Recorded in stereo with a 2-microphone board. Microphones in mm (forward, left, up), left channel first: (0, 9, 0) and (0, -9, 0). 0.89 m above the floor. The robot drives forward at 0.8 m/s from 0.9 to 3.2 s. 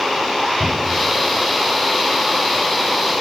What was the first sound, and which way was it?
A cupboard door, 70° right (ahead or behind).